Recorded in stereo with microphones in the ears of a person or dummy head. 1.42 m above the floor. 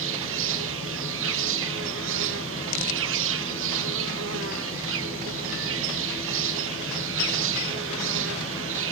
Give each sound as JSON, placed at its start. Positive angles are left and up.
{"t": 0.0, "sound": "an insect", "side_deg": -65, "distance_m": 1.0}